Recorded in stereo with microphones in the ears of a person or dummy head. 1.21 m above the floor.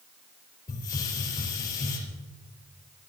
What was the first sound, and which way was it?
A hiss, 20° left (ahead or behind).